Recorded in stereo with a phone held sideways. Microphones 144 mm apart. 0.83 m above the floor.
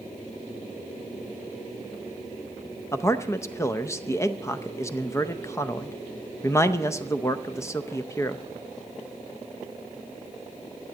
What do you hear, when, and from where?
2.9 s a man speaking: 20° left (ahead or behind), 0.5 m